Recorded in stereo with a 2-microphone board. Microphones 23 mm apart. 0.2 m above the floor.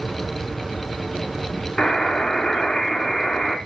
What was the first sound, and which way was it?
A buzzer, 30° left (ahead or behind).